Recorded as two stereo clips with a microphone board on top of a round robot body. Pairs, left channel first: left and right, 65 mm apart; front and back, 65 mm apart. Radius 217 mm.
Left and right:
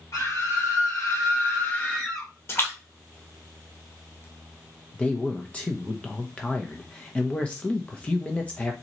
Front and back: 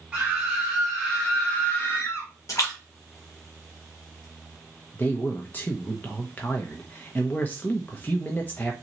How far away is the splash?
About 1.8 m.